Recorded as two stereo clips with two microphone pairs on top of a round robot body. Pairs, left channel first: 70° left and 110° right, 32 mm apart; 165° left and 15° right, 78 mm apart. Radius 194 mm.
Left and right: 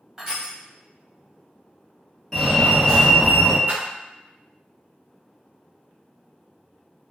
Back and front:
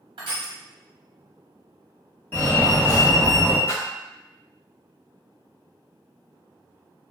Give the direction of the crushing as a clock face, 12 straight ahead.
1 o'clock.